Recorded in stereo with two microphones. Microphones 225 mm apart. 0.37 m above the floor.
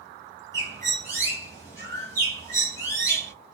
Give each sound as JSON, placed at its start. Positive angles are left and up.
{"t": 0.5, "sound": "a bird", "side_deg": 15, "distance_m": 1.2}